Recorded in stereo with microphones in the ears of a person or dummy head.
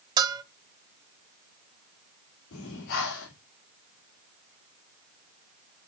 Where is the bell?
20° right (ahead or behind), 0.6 m.